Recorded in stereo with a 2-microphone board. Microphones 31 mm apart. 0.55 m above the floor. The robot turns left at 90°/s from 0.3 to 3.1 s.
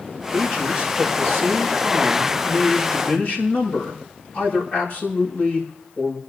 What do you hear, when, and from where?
0.3 s a man speaking: 10° left, 5.5 m; by 6.2 s 120° left, 5.5 m